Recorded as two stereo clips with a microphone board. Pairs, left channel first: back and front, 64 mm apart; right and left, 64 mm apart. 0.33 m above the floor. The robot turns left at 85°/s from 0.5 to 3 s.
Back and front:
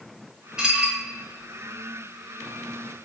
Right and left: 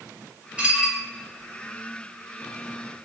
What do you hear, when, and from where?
0.6 s dishes clattering: 55° left, 0.5 m; by 1.0 s 20° left, 0.5 m